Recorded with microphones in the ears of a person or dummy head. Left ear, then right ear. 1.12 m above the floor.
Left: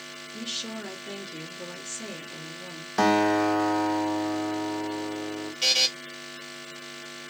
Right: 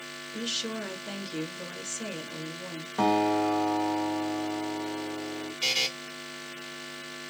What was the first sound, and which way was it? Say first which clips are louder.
A woman speaking: right 2 dB; 15° right (ahead or behind).